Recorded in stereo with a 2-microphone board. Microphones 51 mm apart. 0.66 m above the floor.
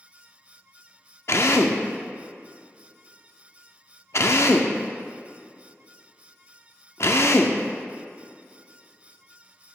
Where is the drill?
60° left (ahead or behind), 0.5 m.